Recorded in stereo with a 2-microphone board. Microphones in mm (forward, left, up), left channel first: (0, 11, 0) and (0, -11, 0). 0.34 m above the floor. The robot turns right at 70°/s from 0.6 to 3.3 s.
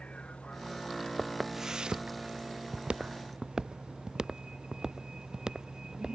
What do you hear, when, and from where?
0.0 s a vehicle: 75° left (ahead or behind); by 6.2 s 40° right (ahead or behind)
1.2 s footsteps: 10° left (ahead or behind); by 6.2 s 35° right (ahead or behind)